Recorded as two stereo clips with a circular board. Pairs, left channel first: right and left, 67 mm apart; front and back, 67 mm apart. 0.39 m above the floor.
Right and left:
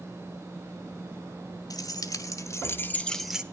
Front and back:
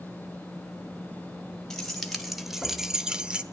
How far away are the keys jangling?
About 1.6 m.